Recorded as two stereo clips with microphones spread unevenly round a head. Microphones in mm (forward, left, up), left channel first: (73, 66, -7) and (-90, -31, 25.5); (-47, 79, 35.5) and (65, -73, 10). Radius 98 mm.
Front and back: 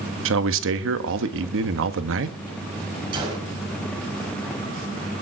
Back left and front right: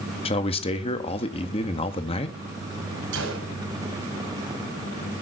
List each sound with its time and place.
0.2 s a man speaking: 170° right, 1.6 m
3.1 s a gunshot: 80° right, 5 m